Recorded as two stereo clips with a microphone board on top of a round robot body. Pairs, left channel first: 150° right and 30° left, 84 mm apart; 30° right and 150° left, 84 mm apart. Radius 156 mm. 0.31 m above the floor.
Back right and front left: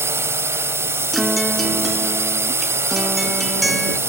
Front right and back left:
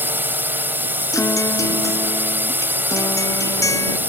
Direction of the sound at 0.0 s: 85° left.